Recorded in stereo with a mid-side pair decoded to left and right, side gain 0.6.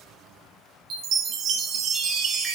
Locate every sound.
0.9 s a chime: 50° right, 0.9 m